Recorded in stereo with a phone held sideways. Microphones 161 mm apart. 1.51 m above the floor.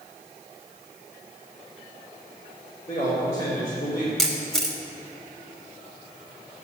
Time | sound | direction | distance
2.9 | a man speaking | 45° left (ahead or behind) | 3 m
4.2 | a camera shutter | 5° left (ahead or behind) | 1.3 m